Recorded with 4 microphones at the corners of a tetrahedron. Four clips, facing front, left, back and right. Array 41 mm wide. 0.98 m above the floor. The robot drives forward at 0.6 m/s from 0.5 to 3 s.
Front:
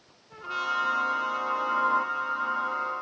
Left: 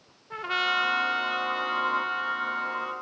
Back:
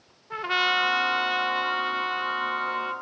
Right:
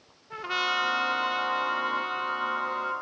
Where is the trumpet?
165° left, 1.2 m; by 2.9 s 175° left, 2.5 m.